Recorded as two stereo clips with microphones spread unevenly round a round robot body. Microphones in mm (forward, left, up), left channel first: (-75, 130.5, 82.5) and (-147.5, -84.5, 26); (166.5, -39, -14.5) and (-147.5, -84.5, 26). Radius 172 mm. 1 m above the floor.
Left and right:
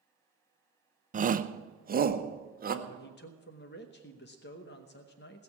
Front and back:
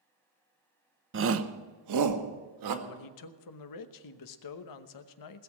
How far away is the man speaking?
About 0.9 m.